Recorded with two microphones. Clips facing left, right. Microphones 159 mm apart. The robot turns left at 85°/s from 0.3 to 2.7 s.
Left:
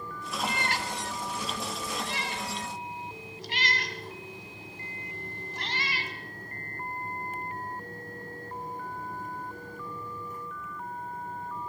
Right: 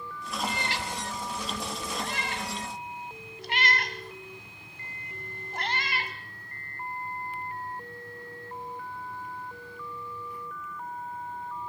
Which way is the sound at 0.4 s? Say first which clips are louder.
Left 1 dB; 70° left (ahead or behind).